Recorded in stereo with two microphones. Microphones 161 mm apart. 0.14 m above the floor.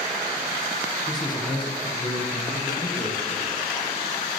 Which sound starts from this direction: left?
A man speaking, at 1.1 s.